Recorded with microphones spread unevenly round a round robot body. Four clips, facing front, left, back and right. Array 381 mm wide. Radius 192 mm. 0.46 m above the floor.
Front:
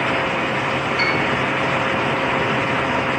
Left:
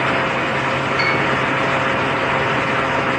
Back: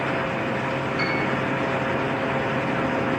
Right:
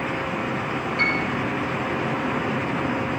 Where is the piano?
50° left, 1.5 m.